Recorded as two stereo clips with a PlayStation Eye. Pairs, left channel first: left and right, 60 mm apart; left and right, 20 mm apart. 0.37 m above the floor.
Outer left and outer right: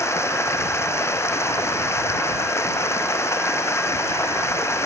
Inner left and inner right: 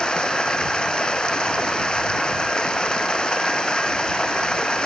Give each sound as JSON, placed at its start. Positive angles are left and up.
{"t": 0.0, "sound": "running water", "side_deg": 50}